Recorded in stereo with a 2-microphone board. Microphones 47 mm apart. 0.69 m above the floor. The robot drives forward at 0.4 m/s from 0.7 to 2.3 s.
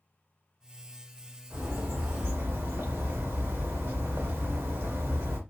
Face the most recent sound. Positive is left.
turn(degrees=-65)  # may be behind; listen again after turning